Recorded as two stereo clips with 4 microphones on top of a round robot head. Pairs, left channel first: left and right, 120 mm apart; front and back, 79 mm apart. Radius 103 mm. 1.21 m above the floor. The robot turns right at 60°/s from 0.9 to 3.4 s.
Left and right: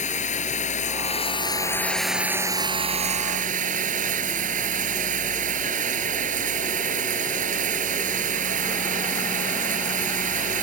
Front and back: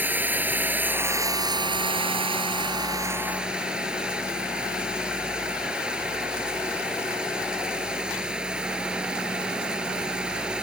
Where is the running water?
110° left; by 10.7 s 100° right.